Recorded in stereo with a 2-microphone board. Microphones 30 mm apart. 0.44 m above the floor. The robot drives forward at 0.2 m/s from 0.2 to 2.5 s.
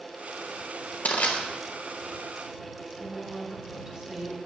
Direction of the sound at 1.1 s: 60° left (ahead or behind).